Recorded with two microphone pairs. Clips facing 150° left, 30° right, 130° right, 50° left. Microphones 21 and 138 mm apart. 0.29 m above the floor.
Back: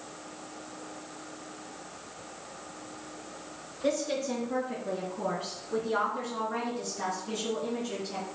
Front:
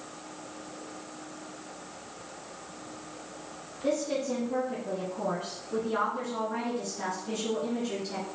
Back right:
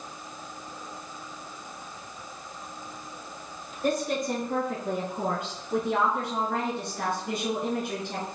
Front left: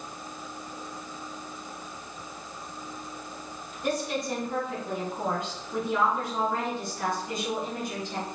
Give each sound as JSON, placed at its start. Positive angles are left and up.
{"t": 3.8, "sound": "a woman speaking", "azimuth_deg": -165, "distance_m": 4.0}